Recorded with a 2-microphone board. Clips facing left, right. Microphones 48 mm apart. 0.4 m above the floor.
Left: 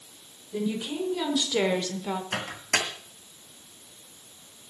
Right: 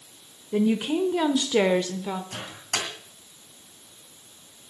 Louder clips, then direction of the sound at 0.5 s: Right 7 dB; 50° right (ahead or behind).